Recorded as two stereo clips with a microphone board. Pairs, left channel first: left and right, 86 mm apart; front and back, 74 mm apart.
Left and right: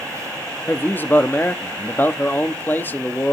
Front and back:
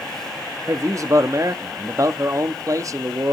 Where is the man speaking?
150° left, 0.7 m.